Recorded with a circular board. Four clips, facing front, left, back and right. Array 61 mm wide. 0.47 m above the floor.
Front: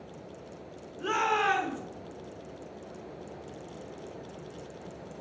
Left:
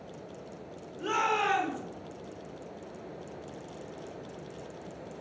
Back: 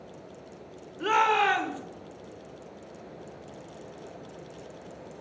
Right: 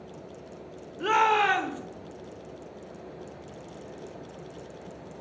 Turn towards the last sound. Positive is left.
turn(degrees=-135)